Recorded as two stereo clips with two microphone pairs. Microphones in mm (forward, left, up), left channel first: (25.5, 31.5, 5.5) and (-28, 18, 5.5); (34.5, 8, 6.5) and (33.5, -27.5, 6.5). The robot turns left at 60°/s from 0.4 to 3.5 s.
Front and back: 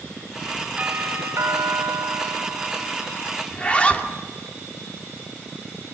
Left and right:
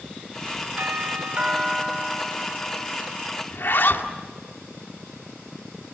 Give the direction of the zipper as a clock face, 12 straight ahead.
9 o'clock.